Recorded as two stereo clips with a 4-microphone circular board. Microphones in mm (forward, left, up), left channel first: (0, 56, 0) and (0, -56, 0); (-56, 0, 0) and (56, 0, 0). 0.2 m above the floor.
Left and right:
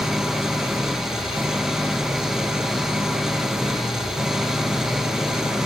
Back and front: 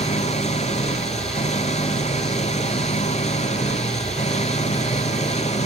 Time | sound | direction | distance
0.0 | an engine running | 175° right | ?